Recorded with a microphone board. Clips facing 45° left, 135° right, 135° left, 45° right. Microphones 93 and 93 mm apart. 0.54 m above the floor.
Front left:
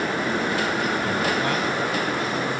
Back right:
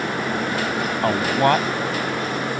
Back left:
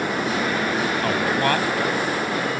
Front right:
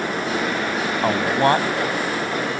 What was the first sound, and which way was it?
A man speaking, 110° right.